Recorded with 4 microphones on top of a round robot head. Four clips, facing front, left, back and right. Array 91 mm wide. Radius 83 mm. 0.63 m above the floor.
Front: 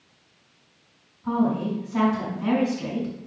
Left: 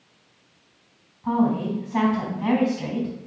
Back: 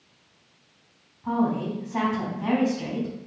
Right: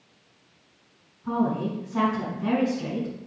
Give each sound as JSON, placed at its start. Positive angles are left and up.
{"t": 1.2, "sound": "a woman speaking", "azimuth_deg": 115, "distance_m": 4.5}